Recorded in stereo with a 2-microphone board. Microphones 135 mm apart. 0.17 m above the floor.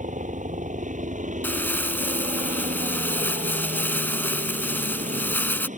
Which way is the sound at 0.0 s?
70° right (ahead or behind).